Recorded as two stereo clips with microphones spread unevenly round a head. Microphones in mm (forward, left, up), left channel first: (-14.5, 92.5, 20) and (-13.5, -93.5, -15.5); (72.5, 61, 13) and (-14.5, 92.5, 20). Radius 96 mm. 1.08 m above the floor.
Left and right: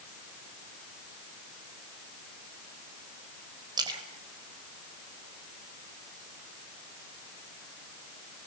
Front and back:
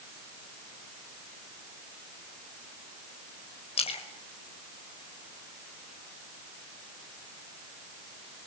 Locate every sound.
3.8 s a splash: 20° right, 4 m